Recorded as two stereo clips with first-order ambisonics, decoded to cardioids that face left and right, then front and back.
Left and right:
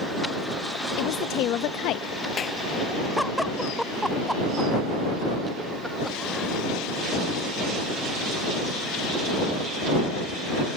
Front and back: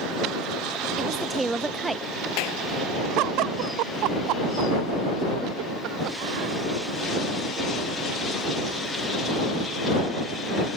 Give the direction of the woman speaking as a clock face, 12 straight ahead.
9 o'clock.